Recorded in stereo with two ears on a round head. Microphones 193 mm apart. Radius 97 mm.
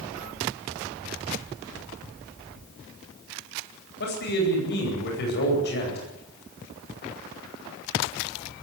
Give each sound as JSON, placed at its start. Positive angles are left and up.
{"t": 4.0, "sound": "a man speaking", "side_deg": 50, "distance_m": 9.5}